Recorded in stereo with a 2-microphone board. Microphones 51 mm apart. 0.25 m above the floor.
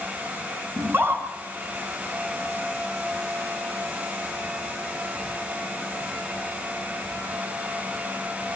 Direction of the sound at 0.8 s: 45° right (ahead or behind).